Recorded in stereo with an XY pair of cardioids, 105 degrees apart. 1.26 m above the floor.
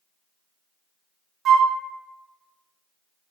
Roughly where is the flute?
Ahead right.